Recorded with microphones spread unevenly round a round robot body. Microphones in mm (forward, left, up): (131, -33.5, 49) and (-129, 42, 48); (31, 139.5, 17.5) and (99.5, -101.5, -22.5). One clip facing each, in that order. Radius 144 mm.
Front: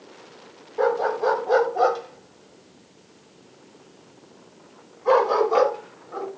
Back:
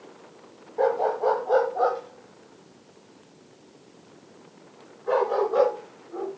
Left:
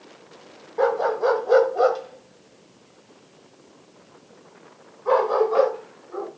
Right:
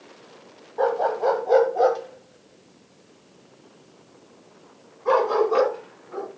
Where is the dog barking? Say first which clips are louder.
Front 1 dB, left 2 dB; 55° left, 1.5 m; by 6.3 s 30° right, 3.5 m.